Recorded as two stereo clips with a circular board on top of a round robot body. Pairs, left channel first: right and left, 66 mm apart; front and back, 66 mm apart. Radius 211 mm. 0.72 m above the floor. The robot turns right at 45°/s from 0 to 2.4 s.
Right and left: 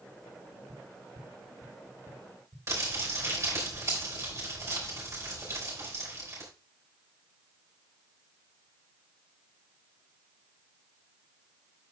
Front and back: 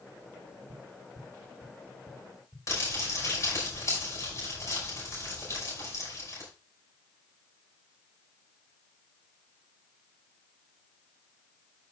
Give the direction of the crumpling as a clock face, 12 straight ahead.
10 o'clock.